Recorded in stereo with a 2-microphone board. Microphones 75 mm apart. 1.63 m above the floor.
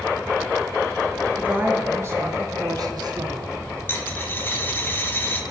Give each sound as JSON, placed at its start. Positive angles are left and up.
{"t": 1.4, "sound": "a woman speaking", "side_deg": -20, "distance_m": 1.7}
{"t": 3.9, "sound": "a dropped coin", "side_deg": 30, "distance_m": 1.0}